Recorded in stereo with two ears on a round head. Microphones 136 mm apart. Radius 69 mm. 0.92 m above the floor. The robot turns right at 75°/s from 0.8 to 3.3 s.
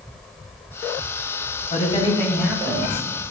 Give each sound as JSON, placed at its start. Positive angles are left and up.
{"t": 1.7, "sound": "a woman speaking", "azimuth_deg": 125, "distance_m": 5.0}